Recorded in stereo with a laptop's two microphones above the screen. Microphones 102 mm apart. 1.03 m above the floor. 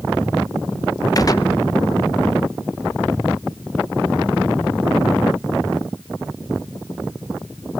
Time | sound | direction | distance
1.1 | a gunshot | 35° left (ahead or behind) | 0.8 m